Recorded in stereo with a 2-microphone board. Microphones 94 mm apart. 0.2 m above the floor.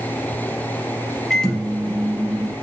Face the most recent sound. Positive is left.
turn(degrees=5)  # may be behind; listen again after turning